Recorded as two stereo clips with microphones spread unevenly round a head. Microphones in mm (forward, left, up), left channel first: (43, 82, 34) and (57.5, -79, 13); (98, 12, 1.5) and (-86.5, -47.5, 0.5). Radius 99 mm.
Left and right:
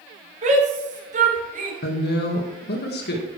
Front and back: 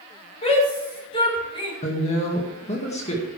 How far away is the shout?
About 5 m.